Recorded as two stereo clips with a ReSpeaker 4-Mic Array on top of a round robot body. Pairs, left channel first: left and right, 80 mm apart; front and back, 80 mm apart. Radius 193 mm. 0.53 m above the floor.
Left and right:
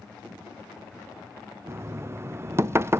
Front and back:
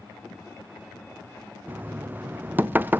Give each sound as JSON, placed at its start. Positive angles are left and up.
{"t": 1.7, "sound": "knocking", "azimuth_deg": -125, "distance_m": 0.6}